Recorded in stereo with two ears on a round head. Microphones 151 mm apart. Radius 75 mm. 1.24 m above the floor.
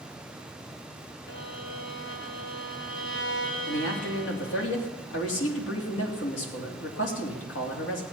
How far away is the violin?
About 1.8 m.